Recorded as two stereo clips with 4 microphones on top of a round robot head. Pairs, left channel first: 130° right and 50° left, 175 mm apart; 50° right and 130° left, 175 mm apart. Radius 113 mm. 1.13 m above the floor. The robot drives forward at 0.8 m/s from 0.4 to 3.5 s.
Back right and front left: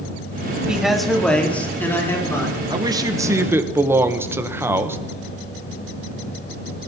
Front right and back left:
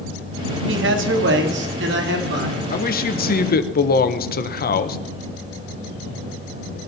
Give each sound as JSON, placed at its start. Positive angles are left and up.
{"t": 0.7, "sound": "a man speaking", "azimuth_deg": 135, "distance_m": 1.8}
{"t": 2.7, "sound": "a man speaking", "azimuth_deg": -15, "distance_m": 1.8}